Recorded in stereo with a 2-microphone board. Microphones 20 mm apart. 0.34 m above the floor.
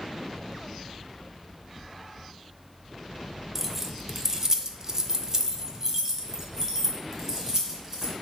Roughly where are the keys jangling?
Centre.